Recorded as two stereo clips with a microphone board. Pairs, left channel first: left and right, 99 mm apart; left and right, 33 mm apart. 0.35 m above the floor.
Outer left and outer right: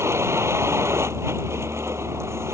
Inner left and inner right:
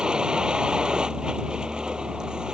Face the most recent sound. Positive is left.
turn(degrees=-25)  # may be behind; listen again after turning